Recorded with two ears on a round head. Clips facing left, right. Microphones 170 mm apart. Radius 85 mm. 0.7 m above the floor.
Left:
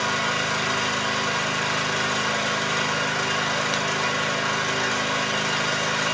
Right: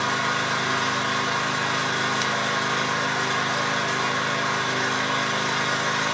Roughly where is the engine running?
Left.